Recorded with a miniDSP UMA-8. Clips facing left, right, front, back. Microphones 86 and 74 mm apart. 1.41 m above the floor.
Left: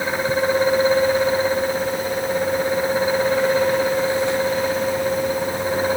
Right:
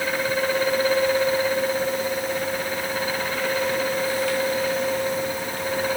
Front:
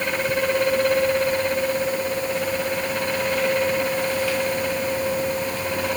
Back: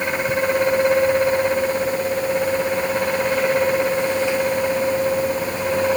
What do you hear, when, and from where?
Only background noise.